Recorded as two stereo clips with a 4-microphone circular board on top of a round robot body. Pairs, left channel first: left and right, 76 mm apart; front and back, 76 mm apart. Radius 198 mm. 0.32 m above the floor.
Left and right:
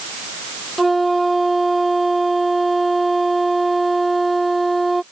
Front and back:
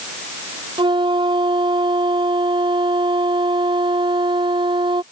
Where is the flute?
Straight behind.